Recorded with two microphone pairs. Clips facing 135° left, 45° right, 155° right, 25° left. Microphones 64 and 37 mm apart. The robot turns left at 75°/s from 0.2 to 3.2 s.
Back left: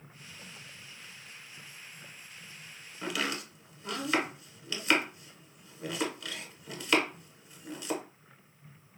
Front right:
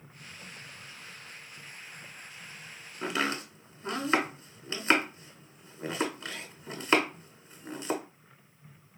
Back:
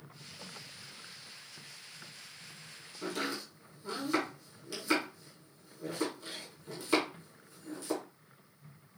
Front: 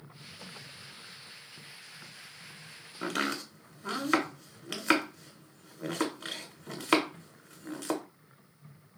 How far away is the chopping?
About 0.7 m.